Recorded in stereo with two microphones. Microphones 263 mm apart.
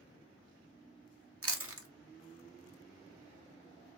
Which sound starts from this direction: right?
Chewing, at 1.4 s.